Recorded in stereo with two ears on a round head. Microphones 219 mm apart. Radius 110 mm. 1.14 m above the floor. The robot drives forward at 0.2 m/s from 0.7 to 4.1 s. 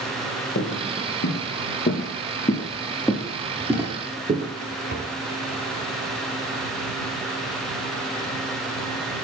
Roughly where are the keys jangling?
I don't hear keys jangling.